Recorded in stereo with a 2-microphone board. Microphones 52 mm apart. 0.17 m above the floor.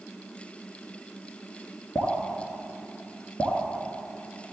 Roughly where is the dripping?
Left.